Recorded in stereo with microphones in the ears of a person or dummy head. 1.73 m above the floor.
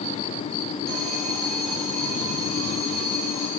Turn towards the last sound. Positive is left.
turn(degrees=0)  # may be behind; listen again after turning